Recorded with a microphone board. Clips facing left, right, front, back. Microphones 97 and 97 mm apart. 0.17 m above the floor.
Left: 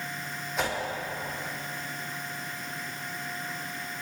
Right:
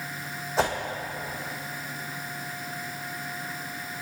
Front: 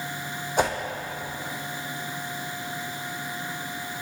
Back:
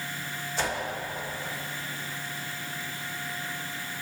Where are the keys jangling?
I don't hear keys jangling.